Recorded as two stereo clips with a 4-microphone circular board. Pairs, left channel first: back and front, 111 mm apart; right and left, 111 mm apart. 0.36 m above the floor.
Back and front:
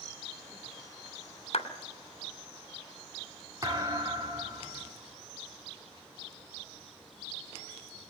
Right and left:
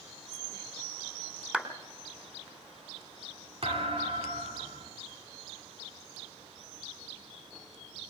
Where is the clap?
170° left, 2.5 m.